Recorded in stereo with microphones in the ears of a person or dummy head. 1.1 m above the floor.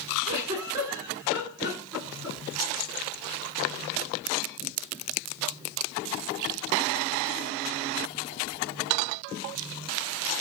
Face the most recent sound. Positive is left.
turn(degrees=-15)  # may be behind; listen again after turning